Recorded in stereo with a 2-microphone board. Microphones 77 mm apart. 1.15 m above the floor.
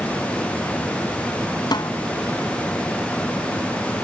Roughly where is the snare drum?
Left.